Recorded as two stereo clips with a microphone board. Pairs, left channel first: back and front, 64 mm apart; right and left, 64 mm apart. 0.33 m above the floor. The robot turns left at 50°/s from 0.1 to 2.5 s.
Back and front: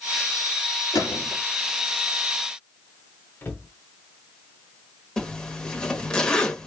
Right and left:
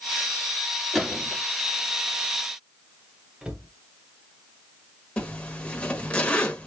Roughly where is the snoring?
I don't hear snoring.